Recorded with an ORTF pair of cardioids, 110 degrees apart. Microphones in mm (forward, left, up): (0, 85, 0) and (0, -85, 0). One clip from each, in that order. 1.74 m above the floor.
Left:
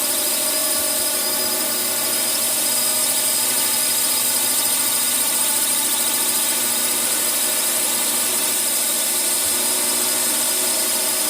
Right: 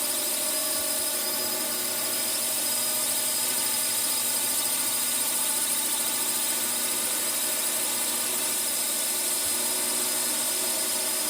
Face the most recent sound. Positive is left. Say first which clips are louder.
# left 7 dB
turn(degrees=45)